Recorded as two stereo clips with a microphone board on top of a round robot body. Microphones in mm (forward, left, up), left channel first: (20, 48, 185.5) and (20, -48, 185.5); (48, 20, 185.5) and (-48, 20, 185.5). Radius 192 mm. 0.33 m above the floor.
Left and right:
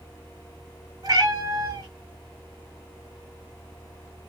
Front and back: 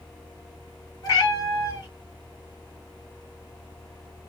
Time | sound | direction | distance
1.0 | a cat meowing | 45° right | 3.5 m